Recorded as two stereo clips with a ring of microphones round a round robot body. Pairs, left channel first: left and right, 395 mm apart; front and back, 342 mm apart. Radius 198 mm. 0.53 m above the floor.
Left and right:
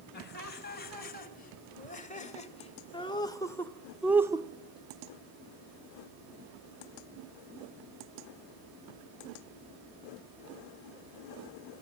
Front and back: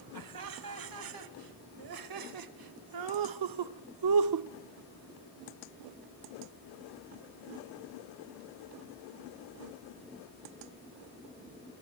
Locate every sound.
0.1 s laughter: 155° left, 3 m; by 4.5 s 165° right, 0.9 m